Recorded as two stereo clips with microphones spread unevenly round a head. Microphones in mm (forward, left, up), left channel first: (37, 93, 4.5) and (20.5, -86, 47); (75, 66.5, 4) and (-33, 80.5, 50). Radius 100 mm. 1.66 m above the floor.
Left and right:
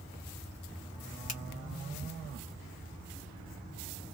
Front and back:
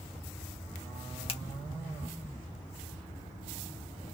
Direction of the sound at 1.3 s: 40° left.